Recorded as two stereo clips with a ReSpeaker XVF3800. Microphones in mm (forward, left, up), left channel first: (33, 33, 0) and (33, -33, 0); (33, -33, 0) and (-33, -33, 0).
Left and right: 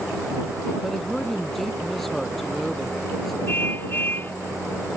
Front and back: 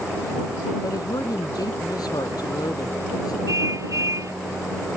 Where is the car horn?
145° left.